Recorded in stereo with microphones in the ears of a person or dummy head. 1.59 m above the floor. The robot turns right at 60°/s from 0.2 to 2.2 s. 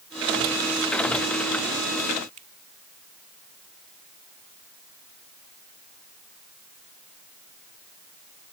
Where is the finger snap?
35° right (ahead or behind).